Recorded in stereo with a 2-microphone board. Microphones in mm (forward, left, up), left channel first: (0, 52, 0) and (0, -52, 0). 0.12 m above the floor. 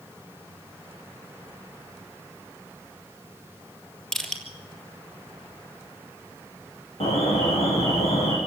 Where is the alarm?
70° left (ahead or behind), 6 m.